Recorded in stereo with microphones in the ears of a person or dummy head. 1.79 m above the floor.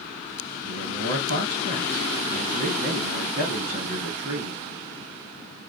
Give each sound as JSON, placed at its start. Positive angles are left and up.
{"t": 0.6, "sound": "a man speaking", "side_deg": -60, "distance_m": 1.8}